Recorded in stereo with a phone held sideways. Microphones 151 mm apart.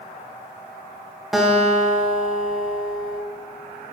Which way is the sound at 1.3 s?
Centre (ahead or behind).